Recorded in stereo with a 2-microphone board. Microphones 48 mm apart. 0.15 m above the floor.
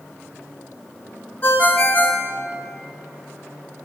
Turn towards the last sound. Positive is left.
turn(degrees=35)  # may be behind; listen again after turning